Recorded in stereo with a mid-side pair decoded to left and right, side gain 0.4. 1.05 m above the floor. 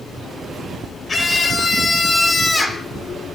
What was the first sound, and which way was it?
A scream, 40° left.